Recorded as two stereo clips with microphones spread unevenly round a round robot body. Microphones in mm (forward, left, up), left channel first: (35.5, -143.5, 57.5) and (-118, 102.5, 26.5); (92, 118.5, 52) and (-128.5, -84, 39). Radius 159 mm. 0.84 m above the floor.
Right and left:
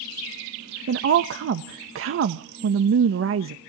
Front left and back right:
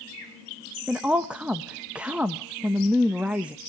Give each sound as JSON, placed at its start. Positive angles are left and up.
{"t": 0.9, "sound": "a woman speaking", "azimuth_deg": 140, "distance_m": 0.6}